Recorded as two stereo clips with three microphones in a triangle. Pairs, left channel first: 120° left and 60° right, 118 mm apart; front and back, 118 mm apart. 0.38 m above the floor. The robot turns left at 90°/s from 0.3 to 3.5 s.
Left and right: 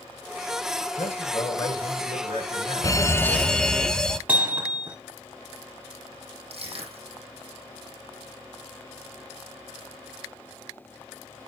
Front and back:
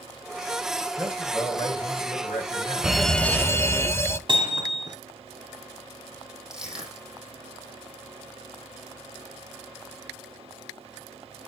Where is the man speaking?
110° left, 4.5 m; by 3.8 s 120° right, 4.5 m.